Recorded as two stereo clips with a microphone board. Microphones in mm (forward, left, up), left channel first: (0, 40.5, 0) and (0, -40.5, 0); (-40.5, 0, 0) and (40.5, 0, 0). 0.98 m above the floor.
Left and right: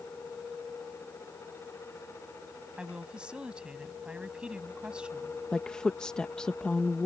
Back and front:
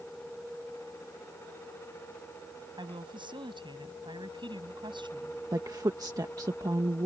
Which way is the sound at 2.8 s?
10° right.